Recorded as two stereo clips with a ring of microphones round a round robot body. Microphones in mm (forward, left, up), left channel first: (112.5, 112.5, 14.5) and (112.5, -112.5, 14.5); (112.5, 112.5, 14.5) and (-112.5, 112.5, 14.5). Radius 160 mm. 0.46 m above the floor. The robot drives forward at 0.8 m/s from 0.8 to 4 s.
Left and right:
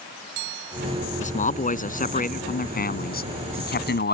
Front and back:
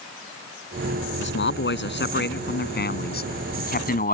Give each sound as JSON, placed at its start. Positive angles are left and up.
{"t": 1.2, "sound": "a man speaking", "azimuth_deg": 35}